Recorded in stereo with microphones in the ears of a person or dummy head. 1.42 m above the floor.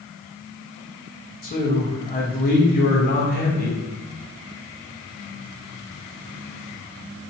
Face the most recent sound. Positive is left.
turn(degrees=40)  # may be behind; listen again after turning